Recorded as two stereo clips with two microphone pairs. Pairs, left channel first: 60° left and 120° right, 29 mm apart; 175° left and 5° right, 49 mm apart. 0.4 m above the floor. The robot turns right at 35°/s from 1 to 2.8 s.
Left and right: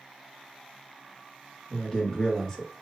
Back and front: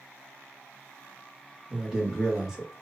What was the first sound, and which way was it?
A man speaking, 35° left.